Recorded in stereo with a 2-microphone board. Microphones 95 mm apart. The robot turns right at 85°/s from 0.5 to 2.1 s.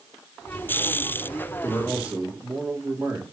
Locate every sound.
1.6 s a man speaking: 155° left, 2.5 m; by 3.2 s 165° right, 2.5 m